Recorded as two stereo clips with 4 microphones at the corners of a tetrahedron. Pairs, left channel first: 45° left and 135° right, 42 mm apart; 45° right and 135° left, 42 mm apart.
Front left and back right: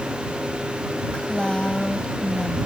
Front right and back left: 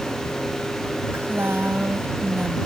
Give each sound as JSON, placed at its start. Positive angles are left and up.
{"t": 1.1, "sound": "a woman speaking", "azimuth_deg": 115}